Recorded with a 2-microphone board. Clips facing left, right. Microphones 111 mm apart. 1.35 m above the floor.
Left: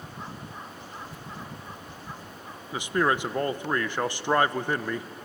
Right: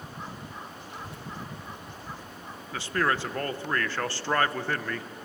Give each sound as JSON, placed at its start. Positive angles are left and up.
{"t": 0.9, "sound": "a child speaking", "side_deg": -70, "distance_m": 4.0}
{"t": 2.7, "sound": "a man speaking", "side_deg": 15, "distance_m": 0.8}